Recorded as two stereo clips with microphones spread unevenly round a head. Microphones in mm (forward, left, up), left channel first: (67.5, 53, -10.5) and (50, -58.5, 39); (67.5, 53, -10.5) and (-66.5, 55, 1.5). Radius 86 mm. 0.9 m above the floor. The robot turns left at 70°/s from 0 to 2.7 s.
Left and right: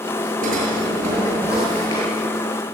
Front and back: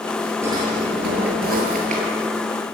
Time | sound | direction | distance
0.4 | a drawer | 105° right | 7 m